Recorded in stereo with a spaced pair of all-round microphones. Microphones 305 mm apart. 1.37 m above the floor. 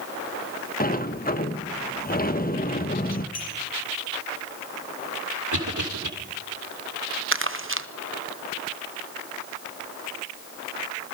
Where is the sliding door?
30° left (ahead or behind), 1.2 m.